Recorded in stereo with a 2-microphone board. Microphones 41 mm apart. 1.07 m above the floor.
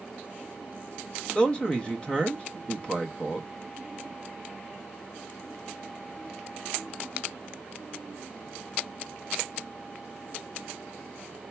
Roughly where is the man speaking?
Left.